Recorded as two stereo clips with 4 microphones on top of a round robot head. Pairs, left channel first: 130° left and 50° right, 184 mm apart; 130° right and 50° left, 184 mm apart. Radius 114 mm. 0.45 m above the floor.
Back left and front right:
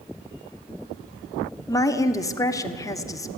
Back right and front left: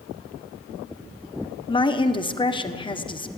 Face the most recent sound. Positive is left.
turn(degrees=-170)